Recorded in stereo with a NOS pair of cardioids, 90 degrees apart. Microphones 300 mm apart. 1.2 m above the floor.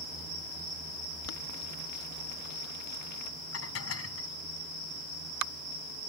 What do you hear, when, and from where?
1.2 s boiling: 65° left
3.5 s dishes clattering: 50° left